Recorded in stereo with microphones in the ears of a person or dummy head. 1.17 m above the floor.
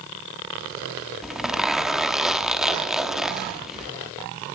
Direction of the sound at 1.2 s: 5° right (ahead or behind).